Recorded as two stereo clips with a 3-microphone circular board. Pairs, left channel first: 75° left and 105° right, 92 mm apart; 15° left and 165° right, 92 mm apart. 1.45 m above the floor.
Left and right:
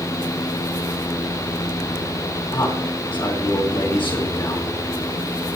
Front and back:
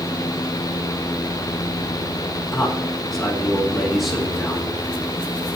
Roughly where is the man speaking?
Left.